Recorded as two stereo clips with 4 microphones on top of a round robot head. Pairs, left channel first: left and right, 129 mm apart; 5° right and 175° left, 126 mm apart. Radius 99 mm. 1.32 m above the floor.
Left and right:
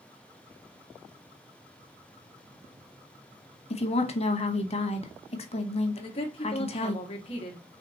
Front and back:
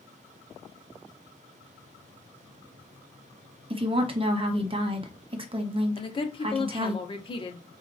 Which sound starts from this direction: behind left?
A woman speaking, at 3.7 s.